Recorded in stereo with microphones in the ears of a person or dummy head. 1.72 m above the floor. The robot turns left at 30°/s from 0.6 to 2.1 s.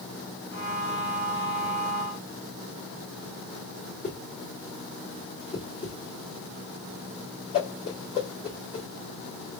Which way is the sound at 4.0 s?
20° left (ahead or behind).